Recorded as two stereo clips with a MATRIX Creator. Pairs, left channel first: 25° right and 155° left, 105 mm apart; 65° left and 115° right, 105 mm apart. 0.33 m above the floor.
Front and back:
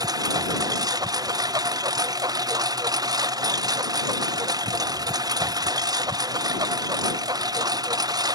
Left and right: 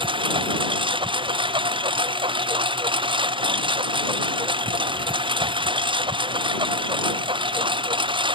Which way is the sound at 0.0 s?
150° right.